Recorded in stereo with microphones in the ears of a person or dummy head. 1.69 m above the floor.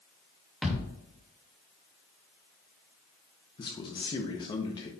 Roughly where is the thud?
Centre.